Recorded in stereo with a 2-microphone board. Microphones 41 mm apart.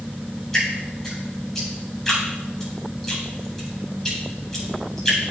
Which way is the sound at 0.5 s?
10° left (ahead or behind).